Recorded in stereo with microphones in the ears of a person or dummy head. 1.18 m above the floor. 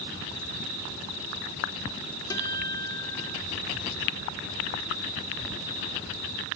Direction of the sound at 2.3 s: 25° left (ahead or behind).